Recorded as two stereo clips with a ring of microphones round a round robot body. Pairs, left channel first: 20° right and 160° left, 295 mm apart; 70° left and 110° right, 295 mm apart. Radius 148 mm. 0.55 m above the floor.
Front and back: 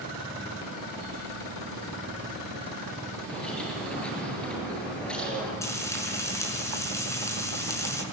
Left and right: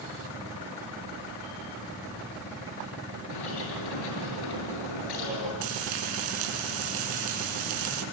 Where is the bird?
65° left, 7.5 m.